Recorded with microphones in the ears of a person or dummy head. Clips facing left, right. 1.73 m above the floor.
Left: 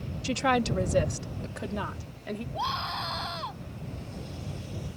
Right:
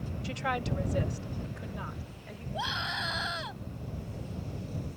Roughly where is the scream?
Centre.